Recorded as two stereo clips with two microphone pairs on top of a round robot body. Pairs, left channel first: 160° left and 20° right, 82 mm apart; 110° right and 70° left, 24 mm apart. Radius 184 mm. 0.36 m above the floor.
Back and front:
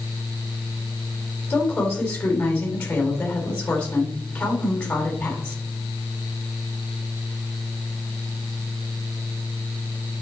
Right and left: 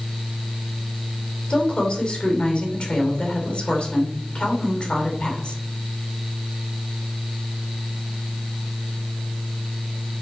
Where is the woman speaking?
125° right, 3 m.